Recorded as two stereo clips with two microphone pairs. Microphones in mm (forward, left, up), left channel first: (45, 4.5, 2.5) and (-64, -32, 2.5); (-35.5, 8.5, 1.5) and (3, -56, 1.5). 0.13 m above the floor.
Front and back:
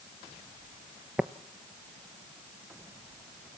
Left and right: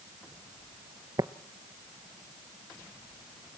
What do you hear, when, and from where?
1.2 s tapping: 80° right, 0.7 m